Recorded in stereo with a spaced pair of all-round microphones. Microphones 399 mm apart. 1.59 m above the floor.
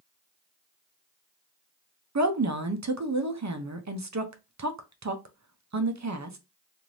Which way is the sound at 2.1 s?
45° right (ahead or behind).